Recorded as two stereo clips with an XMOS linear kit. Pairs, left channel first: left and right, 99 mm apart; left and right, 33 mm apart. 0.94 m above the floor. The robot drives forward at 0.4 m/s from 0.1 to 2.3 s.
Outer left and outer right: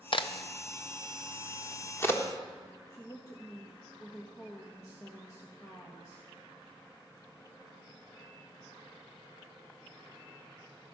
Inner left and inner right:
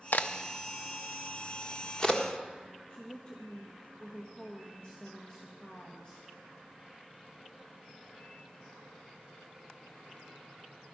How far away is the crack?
About 0.5 m.